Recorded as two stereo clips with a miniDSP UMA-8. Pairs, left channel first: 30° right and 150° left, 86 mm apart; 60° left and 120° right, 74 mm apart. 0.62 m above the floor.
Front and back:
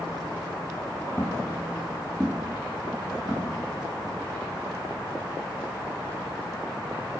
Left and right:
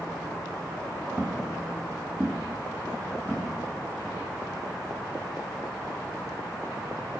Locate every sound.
1.2 s footsteps: 55° right, 0.7 m; by 4.2 s straight behind, 1.6 m